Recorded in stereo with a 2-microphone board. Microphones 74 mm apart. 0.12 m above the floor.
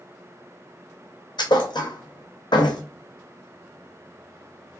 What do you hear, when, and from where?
1.4 s a thud: 80° left, 1.2 m